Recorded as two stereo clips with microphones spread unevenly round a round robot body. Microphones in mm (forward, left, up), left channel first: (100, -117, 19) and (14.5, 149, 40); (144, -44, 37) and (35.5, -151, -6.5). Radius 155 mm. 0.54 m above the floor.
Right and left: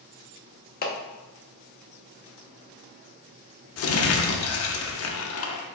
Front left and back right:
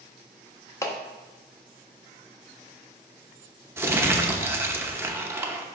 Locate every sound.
0.8 s a clap: 40° right, 0.9 m
3.8 s crumpling: 75° right, 0.7 m